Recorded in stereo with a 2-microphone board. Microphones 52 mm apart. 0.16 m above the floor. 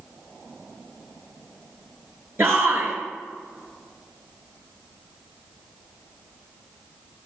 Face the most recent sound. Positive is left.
turn(degrees=-50)  # may be behind; listen again after turning